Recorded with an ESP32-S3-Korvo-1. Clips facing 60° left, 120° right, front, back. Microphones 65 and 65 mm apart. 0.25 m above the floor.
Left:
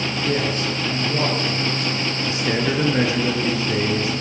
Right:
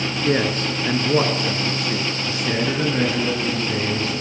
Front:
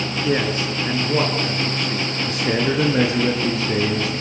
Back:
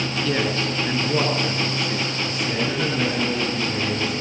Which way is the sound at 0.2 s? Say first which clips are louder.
Right 3 dB, front 3 dB; 70° right.